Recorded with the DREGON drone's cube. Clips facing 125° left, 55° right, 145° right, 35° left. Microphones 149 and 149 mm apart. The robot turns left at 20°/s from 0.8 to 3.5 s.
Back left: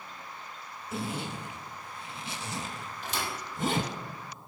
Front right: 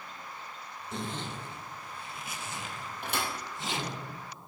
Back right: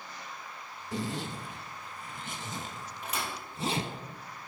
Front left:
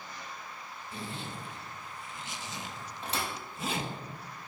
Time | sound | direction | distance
0.9 | a zipper | 150° right | 0.7 m
3.0 | a thud | 25° right | 2.5 m